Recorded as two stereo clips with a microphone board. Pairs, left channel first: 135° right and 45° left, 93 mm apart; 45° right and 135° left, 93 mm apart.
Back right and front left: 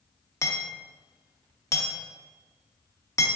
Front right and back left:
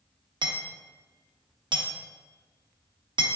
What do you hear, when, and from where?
0.4 s hammering: 170° left, 0.6 m